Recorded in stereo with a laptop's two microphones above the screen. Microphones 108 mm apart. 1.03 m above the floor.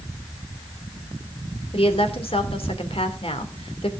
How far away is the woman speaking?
About 2.5 m.